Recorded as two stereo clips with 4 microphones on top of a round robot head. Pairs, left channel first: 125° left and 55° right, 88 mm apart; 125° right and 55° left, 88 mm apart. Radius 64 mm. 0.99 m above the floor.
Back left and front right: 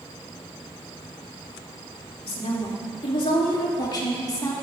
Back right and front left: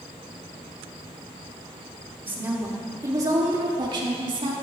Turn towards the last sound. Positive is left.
turn(degrees=75)